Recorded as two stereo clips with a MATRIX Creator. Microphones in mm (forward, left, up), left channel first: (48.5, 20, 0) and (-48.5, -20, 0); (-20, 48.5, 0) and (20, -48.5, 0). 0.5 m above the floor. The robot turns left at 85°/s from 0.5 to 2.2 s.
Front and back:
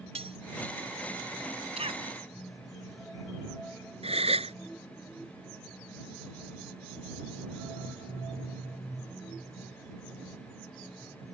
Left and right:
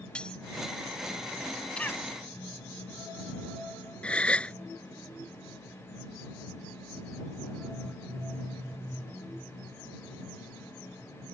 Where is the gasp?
170° right.